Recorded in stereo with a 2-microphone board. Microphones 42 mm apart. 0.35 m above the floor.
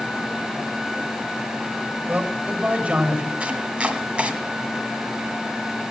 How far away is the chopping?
About 1.5 m.